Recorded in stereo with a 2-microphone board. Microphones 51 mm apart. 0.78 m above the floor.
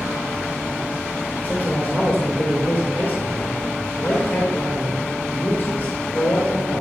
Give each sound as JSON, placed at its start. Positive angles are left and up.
{"t": 1.4, "sound": "a man speaking", "side_deg": 35, "distance_m": 2.5}